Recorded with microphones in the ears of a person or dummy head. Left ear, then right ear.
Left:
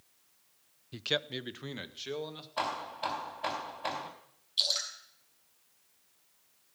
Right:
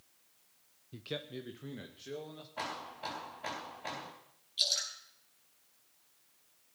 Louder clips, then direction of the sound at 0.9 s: Left 9 dB; 35° left (ahead or behind).